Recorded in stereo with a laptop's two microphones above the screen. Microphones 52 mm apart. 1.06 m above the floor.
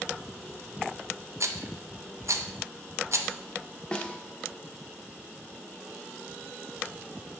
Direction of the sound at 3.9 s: 15° left (ahead or behind).